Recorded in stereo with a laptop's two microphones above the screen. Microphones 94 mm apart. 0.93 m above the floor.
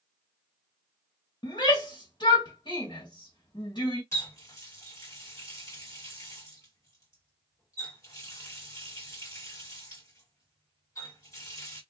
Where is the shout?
50° left (ahead or behind), 1.4 m.